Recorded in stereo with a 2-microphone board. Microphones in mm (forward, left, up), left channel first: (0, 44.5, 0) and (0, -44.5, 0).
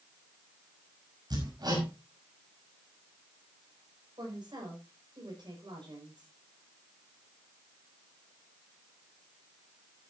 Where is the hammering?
55° right (ahead or behind), 5.5 m.